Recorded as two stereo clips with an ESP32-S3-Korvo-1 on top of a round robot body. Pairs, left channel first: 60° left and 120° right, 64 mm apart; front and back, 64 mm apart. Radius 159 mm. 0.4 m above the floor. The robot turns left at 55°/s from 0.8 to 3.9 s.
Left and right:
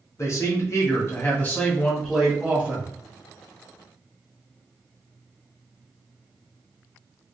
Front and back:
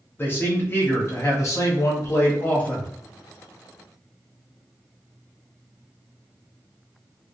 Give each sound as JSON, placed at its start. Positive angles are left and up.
{"t": 0.2, "sound": "a man speaking", "azimuth_deg": 45, "distance_m": 1.3}